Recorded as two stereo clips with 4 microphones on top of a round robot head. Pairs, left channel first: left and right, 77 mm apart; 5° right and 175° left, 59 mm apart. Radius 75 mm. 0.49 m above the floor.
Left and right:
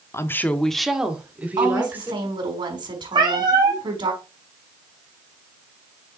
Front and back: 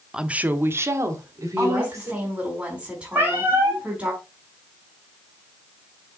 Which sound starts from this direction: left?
A woman speaking, at 0.1 s.